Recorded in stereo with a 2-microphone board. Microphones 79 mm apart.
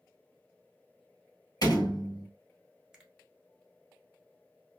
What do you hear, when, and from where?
1.6 s a door slam: 50° left (ahead or behind), 1.8 m
2.9 s a finger snap: 5° right (ahead or behind), 0.9 m